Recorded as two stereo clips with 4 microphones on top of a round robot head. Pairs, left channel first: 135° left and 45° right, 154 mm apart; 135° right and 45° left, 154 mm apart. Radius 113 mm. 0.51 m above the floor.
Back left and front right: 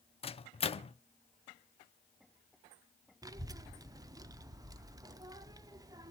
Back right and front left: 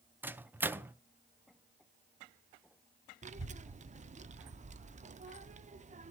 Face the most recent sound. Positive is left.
turn(degrees=20)